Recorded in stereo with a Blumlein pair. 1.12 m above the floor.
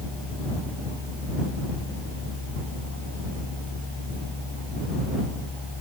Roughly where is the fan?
Ahead.